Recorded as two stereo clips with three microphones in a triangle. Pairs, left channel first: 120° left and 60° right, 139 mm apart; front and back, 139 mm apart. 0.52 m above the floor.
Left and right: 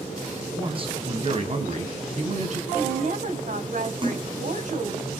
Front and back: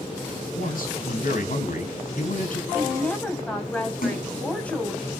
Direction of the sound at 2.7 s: 80° right.